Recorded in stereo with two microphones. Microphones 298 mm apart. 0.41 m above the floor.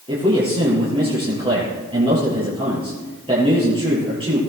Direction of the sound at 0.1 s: 20° right (ahead or behind).